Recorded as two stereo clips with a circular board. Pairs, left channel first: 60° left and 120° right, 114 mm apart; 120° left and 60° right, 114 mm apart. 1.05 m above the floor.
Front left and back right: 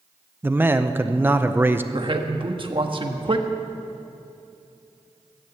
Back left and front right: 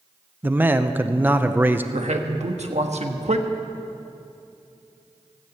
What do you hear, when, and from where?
0.4 s a man speaking: 90° right, 0.6 m
1.9 s a man speaking: 75° right, 1.2 m